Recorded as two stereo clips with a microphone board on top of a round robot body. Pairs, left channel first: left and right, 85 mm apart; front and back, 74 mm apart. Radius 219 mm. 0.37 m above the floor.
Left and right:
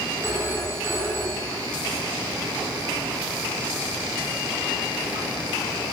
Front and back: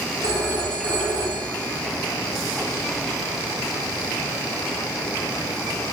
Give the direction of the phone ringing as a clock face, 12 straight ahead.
5 o'clock.